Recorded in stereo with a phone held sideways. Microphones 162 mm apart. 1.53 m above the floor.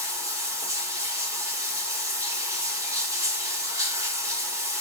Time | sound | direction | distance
0.0 | running water | 20° right (ahead or behind) | 1.9 m